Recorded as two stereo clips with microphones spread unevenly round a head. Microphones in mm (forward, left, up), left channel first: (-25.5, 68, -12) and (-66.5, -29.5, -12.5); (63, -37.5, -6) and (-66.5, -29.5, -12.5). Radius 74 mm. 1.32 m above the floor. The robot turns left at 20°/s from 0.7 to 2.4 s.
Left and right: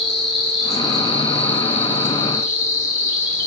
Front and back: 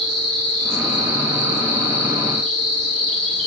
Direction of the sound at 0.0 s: 160° left.